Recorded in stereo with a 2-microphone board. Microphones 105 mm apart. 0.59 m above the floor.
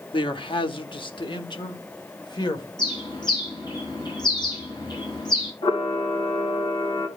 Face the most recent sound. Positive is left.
turn(degrees=55)  # may be behind; listen again after turning